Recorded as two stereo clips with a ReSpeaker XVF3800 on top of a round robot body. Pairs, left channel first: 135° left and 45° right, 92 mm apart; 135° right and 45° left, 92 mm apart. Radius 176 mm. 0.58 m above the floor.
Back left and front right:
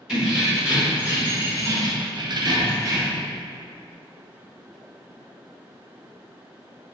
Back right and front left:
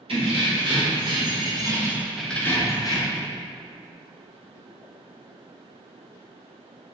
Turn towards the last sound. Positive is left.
turn(degrees=-100)